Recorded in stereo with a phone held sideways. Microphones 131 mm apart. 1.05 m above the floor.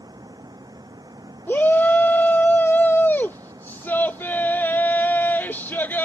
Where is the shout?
15° left (ahead or behind).